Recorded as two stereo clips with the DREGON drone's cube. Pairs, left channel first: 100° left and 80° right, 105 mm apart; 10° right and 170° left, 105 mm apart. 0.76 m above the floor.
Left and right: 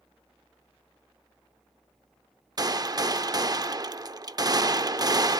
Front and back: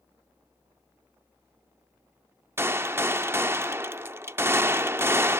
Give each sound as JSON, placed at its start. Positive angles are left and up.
{"t": 2.6, "sound": "a gunshot", "azimuth_deg": -125, "distance_m": 0.5}